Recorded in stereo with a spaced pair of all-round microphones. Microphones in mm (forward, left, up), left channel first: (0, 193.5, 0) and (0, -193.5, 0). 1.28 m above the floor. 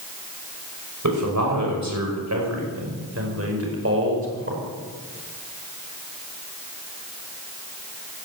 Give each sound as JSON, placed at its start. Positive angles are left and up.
{"t": 1.0, "sound": "a man speaking", "side_deg": -50, "distance_m": 6.0}